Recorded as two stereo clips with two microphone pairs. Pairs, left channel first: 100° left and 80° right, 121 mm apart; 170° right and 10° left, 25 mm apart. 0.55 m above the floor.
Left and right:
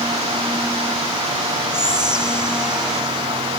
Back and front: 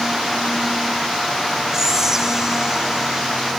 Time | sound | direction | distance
1.7 | whispering | 5° right | 1.1 m